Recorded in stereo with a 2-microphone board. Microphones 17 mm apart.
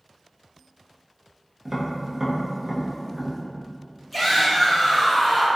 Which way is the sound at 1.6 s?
40° right (ahead or behind).